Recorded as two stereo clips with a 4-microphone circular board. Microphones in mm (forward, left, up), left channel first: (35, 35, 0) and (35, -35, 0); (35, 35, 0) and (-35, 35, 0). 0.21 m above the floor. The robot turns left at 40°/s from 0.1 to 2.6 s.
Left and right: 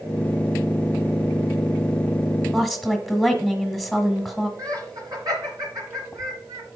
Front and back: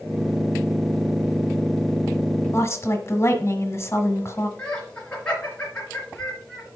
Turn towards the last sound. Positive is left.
turn(degrees=-70)